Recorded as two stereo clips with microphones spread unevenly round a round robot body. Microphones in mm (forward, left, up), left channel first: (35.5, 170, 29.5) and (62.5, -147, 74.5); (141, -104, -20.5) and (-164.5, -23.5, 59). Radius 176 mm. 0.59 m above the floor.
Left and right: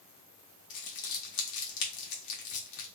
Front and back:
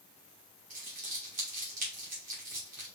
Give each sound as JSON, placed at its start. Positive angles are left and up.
{"t": 0.7, "sound": "crumpling", "azimuth_deg": 90, "distance_m": 1.2}